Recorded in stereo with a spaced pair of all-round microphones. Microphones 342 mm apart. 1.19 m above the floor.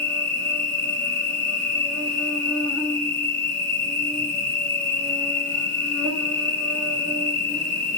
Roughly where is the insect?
Left.